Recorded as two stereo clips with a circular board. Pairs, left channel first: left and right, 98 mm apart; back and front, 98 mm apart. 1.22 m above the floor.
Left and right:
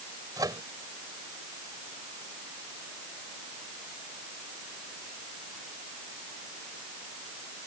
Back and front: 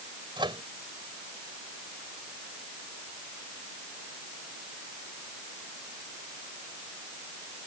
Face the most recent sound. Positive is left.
turn(degrees=-40)